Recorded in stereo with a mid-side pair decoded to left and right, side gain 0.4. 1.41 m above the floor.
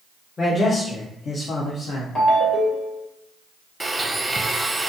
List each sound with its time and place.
0.4 s a man speaking: 35° left, 1.3 m; by 2.0 s 80° left, 1.1 m
2.1 s a ringtone: 35° left, 1.7 m
3.8 s a blender: 20° right, 0.6 m